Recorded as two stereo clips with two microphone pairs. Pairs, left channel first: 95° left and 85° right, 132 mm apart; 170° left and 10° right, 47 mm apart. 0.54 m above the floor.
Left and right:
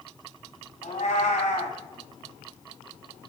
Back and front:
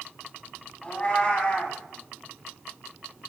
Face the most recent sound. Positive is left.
turn(degrees=110)